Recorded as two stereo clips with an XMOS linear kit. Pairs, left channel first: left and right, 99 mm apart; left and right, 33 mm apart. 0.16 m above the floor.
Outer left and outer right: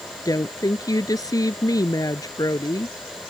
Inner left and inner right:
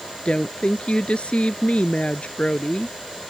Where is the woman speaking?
40° left (ahead or behind).